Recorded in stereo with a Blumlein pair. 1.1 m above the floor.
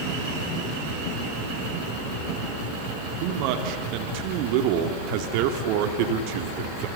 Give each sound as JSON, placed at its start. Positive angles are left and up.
{"t": 3.2, "sound": "a man speaking", "azimuth_deg": -45, "distance_m": 2.0}